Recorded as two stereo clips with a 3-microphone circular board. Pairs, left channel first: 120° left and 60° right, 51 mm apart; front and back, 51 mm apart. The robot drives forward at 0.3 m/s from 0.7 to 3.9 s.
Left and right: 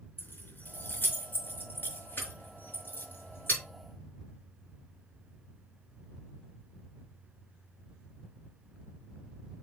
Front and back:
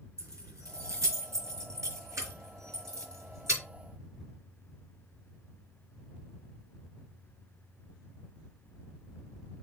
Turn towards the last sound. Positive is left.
turn(degrees=170)